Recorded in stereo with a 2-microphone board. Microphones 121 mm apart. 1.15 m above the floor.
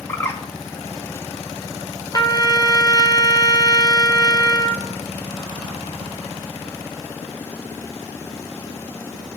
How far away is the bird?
About 0.8 m.